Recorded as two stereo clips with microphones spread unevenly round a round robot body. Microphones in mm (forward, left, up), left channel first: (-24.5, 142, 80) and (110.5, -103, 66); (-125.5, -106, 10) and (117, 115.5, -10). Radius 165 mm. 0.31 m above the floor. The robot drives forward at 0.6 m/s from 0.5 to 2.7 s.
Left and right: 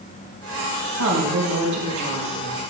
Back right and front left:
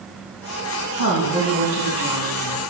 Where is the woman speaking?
95° right, 2.5 m; by 2.6 s 120° right, 3 m.